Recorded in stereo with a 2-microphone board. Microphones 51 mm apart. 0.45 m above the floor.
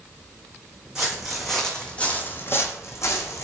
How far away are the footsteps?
About 1.3 m.